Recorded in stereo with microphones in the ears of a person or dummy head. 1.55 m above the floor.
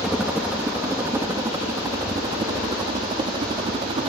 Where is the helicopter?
5° right (ahead or behind); by 4.1 s 30° right (ahead or behind).